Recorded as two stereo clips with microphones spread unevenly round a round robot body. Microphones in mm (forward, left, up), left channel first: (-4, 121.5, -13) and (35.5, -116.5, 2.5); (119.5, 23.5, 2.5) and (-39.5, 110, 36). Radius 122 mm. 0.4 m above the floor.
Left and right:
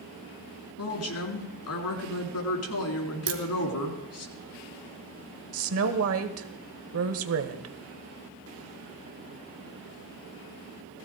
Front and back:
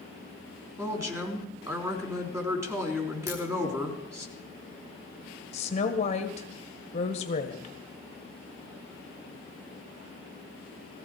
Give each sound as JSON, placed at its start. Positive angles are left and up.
{"t": 0.8, "sound": "a woman speaking", "azimuth_deg": 75, "distance_m": 4.0}
{"t": 3.3, "sound": "a crack", "azimuth_deg": -125, "distance_m": 2.5}
{"t": 5.5, "sound": "a woman speaking", "azimuth_deg": -65, "distance_m": 1.5}